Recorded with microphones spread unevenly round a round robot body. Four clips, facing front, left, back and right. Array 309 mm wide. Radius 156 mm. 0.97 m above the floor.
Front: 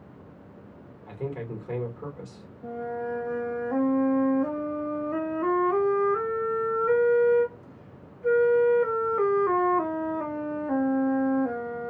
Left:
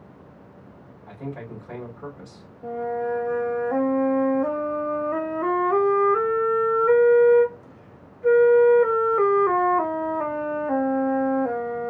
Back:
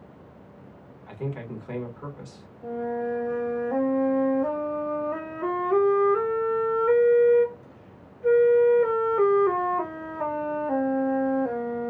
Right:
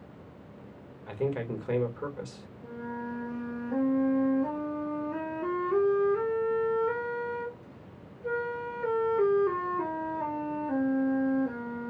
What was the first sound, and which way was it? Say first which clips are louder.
A man speaking: right 4 dB, even; 90° right.